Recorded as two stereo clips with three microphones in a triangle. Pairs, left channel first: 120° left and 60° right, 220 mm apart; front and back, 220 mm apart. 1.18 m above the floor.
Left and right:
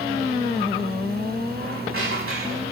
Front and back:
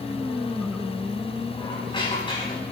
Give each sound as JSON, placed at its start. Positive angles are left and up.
{"t": 1.6, "sound": "a squeak", "azimuth_deg": -65, "distance_m": 5.0}